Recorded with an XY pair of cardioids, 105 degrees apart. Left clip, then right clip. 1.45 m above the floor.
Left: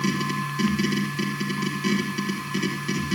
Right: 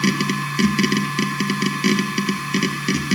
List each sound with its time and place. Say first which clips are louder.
0.0 s a machine running: right 5 dB; 65° right, 1.5 m